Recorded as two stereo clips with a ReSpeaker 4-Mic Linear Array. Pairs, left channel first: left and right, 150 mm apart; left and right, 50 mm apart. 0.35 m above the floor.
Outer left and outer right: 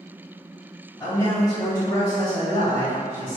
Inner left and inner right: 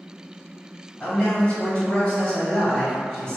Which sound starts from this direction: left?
A man speaking, at 1.0 s.